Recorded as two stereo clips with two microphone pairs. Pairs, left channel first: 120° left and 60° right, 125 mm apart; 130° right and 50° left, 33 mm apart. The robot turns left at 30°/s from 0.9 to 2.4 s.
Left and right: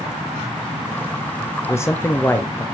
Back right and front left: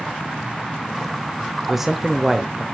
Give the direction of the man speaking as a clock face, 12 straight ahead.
8 o'clock.